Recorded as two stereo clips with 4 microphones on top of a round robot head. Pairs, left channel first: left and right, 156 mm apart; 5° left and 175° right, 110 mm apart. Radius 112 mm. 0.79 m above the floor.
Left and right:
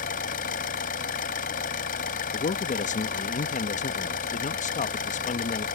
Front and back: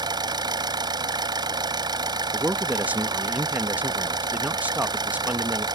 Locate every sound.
0.0 s an engine running: 135° left
2.3 s a man speaking: 110° left